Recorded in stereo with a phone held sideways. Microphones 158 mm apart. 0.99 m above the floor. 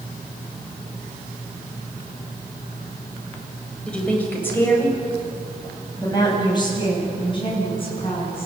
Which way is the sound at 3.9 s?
5° left (ahead or behind).